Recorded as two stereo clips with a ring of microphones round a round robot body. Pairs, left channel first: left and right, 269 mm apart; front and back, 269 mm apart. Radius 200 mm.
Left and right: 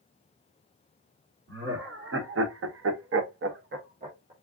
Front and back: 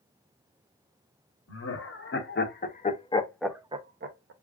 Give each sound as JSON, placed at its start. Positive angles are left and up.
{"t": 1.5, "sound": "laughter", "azimuth_deg": -40, "distance_m": 1.4}